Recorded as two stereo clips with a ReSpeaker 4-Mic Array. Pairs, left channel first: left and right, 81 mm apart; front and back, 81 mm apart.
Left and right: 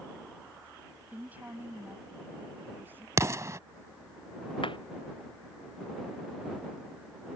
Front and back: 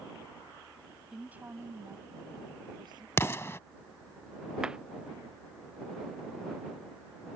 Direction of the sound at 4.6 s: 100° left.